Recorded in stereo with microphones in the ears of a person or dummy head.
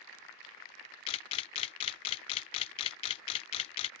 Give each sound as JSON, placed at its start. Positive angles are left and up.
{"t": 1.1, "sound": "a camera shutter", "side_deg": 30}